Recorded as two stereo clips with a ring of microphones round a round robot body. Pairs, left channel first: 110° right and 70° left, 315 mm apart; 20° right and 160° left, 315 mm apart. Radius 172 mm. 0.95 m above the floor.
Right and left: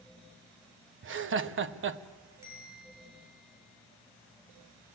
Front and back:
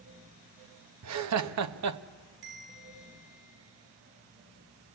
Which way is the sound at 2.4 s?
150° left.